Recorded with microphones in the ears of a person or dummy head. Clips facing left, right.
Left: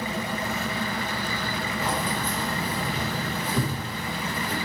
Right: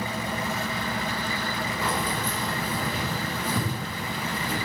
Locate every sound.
1.8 s keys jangling: 65° right (ahead or behind), 4 m; by 4.6 s 45° right (ahead or behind), 7 m